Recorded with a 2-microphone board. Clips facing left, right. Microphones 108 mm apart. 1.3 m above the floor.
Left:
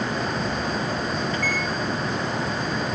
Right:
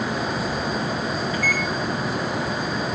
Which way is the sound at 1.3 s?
10° right (ahead or behind).